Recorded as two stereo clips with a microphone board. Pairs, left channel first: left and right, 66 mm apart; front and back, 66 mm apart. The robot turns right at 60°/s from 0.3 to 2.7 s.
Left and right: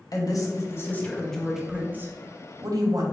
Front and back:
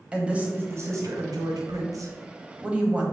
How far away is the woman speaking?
About 0.8 m.